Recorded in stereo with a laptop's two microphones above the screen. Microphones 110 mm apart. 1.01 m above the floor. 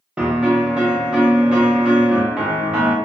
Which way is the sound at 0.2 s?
10° right (ahead or behind).